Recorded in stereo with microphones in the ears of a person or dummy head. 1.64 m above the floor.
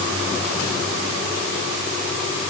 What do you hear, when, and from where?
Only background noise.